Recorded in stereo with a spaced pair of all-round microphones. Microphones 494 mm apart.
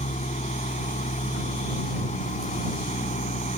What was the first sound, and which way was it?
An engine running, 15° left (ahead or behind).